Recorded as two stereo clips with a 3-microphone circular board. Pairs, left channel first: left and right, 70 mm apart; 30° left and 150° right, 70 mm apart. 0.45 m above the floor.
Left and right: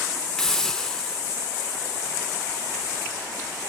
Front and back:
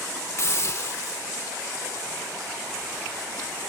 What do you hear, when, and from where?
0.4 s a hiss: 10° left, 0.5 m